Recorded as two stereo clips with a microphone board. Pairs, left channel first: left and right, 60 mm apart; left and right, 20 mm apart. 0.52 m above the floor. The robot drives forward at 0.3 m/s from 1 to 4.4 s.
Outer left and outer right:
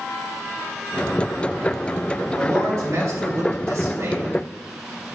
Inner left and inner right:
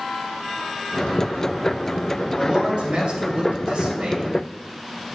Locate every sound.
2.4 s a man speaking: 55° right (ahead or behind), 2.5 m; by 4.5 s 50° right (ahead or behind), 2.5 m